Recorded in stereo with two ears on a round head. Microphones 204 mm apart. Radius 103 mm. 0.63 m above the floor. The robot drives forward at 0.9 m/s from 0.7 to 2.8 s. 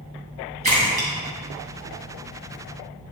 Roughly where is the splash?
Right.